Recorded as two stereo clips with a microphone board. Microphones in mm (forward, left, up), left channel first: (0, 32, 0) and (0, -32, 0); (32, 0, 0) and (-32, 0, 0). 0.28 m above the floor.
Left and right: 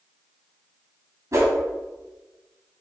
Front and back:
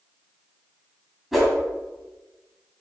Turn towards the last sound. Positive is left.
turn(degrees=-95)